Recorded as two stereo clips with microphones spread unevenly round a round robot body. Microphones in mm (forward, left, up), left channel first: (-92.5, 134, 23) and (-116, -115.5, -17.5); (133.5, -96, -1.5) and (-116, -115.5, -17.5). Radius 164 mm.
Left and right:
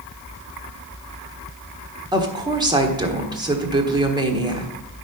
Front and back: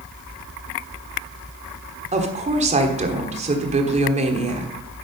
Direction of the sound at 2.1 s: 140° right.